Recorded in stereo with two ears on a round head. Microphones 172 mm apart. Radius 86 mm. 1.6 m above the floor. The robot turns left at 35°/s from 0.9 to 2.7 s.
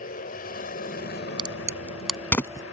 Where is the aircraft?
135° left; by 2.7 s 70° left.